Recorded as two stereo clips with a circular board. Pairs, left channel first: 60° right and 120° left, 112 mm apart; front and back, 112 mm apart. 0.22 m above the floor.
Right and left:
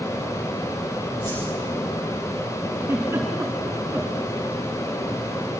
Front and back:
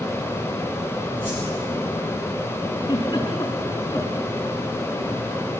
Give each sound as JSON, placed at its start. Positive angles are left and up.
{"t": 1.2, "sound": "a whoosh", "azimuth_deg": -110, "distance_m": 8.5}
{"t": 2.8, "sound": "a giggle", "azimuth_deg": 45, "distance_m": 4.0}